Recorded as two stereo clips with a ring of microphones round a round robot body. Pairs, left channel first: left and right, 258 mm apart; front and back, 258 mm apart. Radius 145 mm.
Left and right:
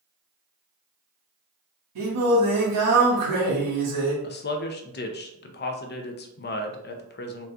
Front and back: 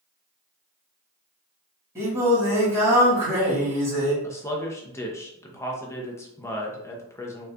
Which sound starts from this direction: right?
Singing, at 1.9 s.